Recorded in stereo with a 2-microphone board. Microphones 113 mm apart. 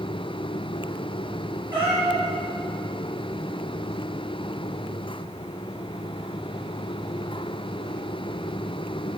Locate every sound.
1.7 s a cat meowing: 15° right (ahead or behind), 3 m